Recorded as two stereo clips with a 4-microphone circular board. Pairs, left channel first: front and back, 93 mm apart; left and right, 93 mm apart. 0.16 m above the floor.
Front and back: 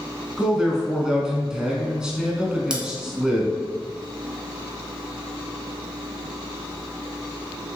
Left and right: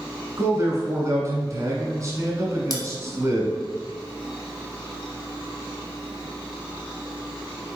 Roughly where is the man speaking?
Right.